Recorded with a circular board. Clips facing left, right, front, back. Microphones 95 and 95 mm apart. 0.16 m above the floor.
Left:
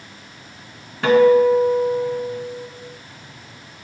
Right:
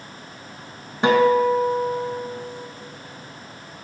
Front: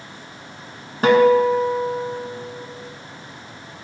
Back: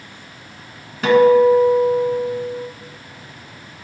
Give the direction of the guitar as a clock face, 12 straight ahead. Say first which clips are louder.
Left 4 dB, back 3 dB; 1 o'clock.